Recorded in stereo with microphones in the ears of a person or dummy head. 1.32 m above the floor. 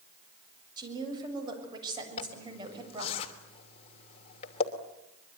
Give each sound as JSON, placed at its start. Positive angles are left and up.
{"t": 0.8, "sound": "a woman speaking", "side_deg": -25, "distance_m": 7.0}
{"t": 2.2, "sound": "a zipper", "side_deg": 30, "distance_m": 2.5}